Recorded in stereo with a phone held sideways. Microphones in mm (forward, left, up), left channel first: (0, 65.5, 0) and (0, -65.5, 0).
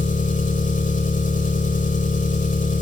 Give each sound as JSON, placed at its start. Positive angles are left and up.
{"t": 0.0, "sound": "an engine running", "side_deg": 80, "distance_m": 4.5}